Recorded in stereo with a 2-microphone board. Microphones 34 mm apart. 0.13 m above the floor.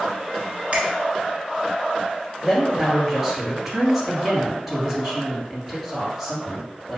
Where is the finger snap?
40° right (ahead or behind), 1.3 m.